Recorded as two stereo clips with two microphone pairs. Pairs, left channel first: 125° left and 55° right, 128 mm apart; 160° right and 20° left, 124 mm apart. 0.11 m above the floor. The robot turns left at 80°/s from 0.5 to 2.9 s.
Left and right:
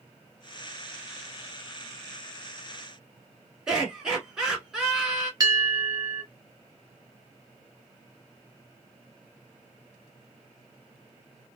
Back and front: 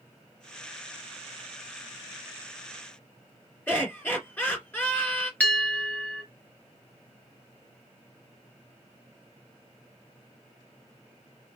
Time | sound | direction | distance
3.7 | laughter | 130° right | 1.6 m
5.4 | a bell | 90° right | 0.9 m